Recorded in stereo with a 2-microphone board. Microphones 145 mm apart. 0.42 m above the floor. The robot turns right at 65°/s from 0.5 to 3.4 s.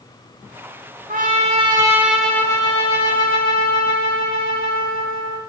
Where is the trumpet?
70° right, 0.6 m; by 5.4 s 80° left, 0.6 m.